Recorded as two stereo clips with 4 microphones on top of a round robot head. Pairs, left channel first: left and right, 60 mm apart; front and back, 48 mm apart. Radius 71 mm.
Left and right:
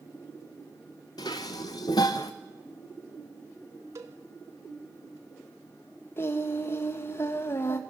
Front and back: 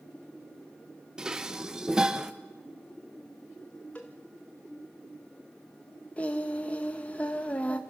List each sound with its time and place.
1.2 s dishes clattering: 110° left, 0.8 m
4.0 s a cowbell: 75° right, 0.8 m
6.2 s singing: 50° left, 1.0 m